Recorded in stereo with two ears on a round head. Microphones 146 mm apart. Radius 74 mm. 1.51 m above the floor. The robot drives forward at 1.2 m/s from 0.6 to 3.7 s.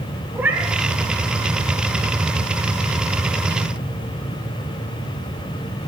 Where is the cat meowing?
10° right (ahead or behind), 1.7 m.